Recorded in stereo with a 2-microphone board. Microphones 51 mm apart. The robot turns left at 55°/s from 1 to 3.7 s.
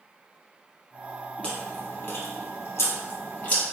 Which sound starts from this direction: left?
Chewing, at 1.4 s.